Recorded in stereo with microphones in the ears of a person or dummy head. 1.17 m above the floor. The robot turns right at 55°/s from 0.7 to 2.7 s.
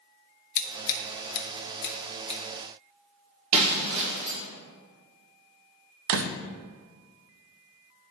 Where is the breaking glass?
35° right (ahead or behind), 2 m.